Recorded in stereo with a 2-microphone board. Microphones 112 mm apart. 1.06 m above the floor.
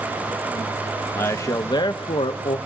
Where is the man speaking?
20° left (ahead or behind), 1.0 m; by 2.6 s 65° left (ahead or behind), 0.9 m.